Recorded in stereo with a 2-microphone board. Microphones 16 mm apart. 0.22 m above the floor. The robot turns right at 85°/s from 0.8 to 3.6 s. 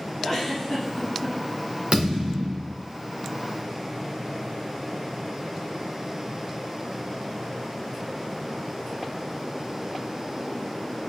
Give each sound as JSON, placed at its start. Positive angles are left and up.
{"t": 0.2, "sound": "a giggle", "azimuth_deg": 115, "distance_m": 1.4}
{"t": 1.9, "sound": "a thud", "azimuth_deg": -100, "distance_m": 1.8}